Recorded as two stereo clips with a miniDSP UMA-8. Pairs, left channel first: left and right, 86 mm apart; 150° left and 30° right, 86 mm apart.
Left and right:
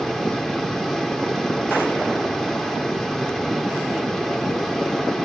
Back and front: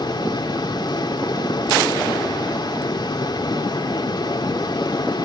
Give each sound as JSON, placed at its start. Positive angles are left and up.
{"t": 0.0, "sound": "running water", "azimuth_deg": 175, "distance_m": 2.5}